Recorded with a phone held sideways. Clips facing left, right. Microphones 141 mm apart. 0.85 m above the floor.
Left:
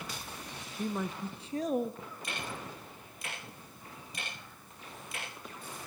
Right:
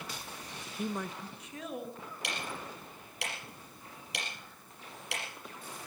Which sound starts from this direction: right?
Ticking, at 2.2 s.